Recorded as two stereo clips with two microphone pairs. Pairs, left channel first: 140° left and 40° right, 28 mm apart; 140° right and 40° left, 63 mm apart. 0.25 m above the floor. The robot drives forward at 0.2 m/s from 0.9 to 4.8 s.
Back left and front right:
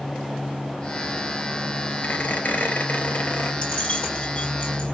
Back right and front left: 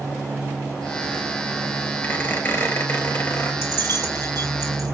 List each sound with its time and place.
2.0 s a squeak: 165° left, 1.1 m; by 3.5 s 170° left, 1.4 m
3.6 s keys jangling: 170° right, 2 m